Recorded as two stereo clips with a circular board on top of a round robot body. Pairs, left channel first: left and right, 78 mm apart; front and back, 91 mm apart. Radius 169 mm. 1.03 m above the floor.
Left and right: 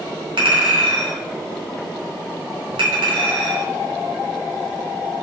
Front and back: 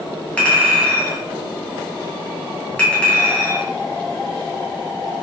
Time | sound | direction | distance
0.4 | a clink | 80° right | 0.7 m